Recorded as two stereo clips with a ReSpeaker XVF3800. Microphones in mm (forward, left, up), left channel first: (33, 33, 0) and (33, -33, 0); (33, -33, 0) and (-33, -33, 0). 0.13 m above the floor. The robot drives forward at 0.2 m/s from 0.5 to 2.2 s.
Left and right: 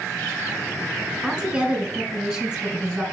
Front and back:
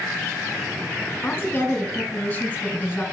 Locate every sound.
1.2 s a woman speaking: 25° right, 1.3 m; by 3.0 s 35° right, 1.2 m